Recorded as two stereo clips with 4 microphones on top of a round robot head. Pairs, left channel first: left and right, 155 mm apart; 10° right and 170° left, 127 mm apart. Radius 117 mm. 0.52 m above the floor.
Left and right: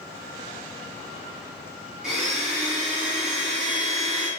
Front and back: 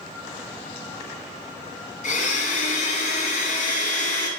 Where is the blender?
5° right, 2.5 m.